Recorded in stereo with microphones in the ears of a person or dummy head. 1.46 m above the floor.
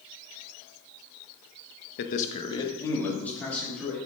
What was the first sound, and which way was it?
A man speaking, 55° left (ahead or behind).